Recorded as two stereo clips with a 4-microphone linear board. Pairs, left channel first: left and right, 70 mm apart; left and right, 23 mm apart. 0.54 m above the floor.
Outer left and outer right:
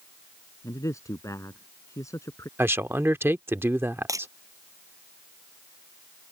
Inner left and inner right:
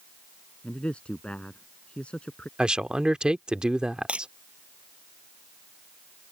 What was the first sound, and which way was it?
A man speaking, 50° left (ahead or behind).